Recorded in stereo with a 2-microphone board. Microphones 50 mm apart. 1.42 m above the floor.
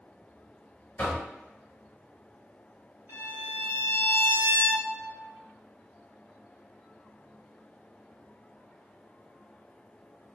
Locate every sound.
1.0 s knocking: 35° left (ahead or behind), 1.2 m
3.1 s a violin: 65° right (ahead or behind), 1.7 m